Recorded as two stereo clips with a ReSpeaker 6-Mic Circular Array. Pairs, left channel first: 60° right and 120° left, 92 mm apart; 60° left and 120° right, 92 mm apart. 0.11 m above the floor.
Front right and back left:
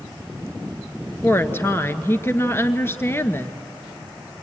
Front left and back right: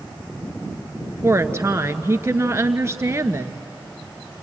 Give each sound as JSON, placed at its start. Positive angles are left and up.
{"t": 1.2, "sound": "a woman speaking", "azimuth_deg": -95, "distance_m": 1.2}